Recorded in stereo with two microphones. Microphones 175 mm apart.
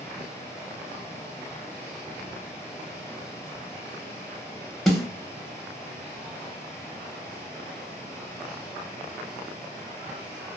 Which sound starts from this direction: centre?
A snare drum, at 4.9 s.